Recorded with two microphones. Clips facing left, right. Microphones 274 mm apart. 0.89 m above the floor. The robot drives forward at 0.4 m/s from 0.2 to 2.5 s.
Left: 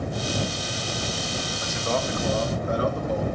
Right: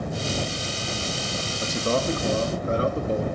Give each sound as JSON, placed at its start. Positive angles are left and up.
{"t": 1.6, "sound": "a man speaking", "side_deg": -45, "distance_m": 0.6}